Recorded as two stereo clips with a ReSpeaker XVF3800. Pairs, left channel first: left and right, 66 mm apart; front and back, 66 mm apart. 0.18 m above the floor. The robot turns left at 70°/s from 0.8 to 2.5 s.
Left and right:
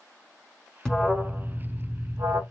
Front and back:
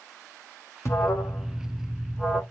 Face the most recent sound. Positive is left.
turn(degrees=-100)